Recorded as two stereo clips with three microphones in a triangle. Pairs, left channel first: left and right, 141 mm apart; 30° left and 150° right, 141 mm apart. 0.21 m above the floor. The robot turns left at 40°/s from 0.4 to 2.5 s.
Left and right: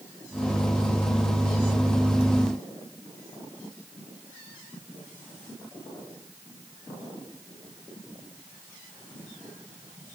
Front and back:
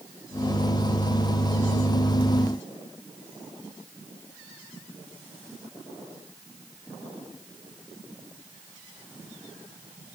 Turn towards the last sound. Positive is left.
No sound to turn to.